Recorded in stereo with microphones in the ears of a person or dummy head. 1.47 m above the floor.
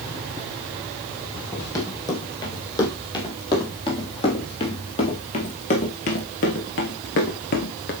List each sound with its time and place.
1.5 s running footsteps: 15° left (ahead or behind), 4 m; by 7.9 s 40° left (ahead or behind), 1.9 m